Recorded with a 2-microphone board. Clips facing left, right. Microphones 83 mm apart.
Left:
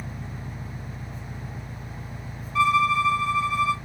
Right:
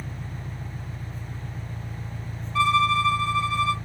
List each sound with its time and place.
0.0 s an engine running: 25° left (ahead or behind), 1.6 m
2.5 s a violin: 5° left (ahead or behind), 1.2 m